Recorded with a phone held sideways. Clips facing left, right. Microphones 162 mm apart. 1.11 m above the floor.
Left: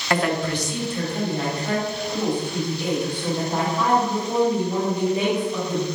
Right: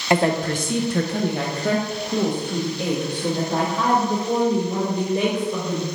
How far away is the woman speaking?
About 0.5 m.